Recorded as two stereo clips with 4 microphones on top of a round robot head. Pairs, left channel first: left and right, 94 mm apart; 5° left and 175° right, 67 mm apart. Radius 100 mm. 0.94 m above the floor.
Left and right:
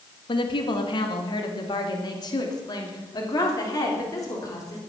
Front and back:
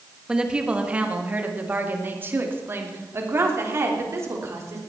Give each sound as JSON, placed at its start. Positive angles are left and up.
{"t": 0.3, "sound": "a woman speaking", "azimuth_deg": 105, "distance_m": 1.8}